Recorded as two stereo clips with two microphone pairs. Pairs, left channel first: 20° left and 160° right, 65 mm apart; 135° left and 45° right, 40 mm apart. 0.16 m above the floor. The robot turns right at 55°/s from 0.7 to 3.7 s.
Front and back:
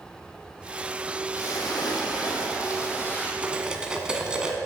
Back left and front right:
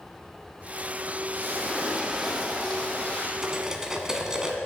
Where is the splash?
15° right, 1.4 m; by 3.3 s 90° left, 1.4 m.